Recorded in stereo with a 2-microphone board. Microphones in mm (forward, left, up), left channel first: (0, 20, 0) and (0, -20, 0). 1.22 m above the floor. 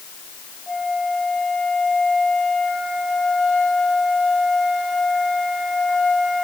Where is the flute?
5° left (ahead or behind), 6.5 m.